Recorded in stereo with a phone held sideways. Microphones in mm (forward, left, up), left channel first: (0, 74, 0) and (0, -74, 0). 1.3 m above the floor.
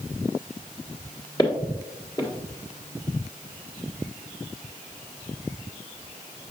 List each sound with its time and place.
1.4 s footsteps: 25° left (ahead or behind), 1.4 m